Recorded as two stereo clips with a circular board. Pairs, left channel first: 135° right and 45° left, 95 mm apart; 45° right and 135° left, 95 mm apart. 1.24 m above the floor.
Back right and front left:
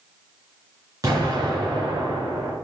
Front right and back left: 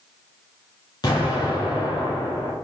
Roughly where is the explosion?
Ahead.